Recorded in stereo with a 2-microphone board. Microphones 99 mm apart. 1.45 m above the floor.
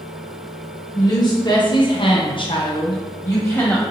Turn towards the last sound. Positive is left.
turn(degrees=25)  # may be behind; listen again after turning